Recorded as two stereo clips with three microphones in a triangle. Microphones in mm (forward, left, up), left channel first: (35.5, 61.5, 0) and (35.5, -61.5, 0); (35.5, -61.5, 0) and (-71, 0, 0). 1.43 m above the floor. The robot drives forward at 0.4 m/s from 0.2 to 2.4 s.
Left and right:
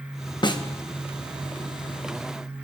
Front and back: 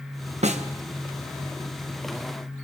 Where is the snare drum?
135° left, 0.8 m; by 0.6 s 140° left, 0.9 m.